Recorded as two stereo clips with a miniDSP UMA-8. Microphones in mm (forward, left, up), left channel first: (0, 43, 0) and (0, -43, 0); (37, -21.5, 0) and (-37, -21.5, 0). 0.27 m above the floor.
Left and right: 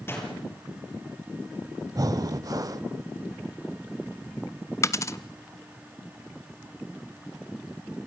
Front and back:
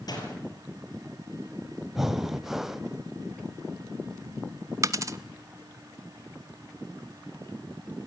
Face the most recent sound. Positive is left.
turn(degrees=140)